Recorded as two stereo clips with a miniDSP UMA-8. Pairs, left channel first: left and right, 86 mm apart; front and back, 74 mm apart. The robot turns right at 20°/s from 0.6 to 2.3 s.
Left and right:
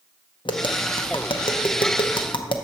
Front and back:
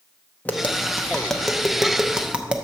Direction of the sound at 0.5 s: 70° left.